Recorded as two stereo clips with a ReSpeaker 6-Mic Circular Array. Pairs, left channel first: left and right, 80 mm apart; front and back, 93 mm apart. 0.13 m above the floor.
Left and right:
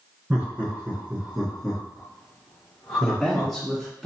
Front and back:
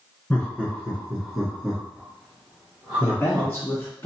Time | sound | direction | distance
0.3 | laughter | 50° right | 1.5 m
3.0 | a man speaking | straight ahead | 1.8 m